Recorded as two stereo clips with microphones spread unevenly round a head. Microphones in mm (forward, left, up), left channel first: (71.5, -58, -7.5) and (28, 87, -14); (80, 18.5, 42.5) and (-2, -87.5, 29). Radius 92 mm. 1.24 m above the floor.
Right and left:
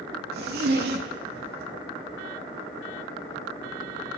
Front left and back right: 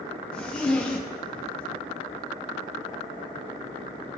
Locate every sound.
0.3 s a zipper: 135° left, 0.6 m